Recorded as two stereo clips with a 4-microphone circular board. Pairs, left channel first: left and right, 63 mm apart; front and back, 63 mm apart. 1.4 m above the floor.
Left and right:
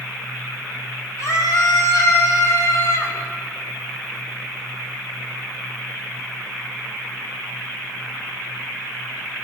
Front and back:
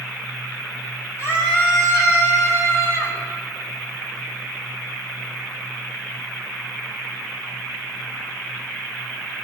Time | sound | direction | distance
1.2 | a scream | 50° left | 7.5 m